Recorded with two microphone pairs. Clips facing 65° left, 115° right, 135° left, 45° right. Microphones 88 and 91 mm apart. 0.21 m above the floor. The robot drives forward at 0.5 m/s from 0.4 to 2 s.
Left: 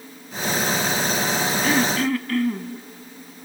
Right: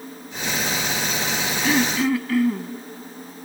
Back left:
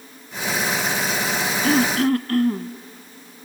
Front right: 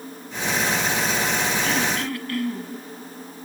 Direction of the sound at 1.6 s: 155° left.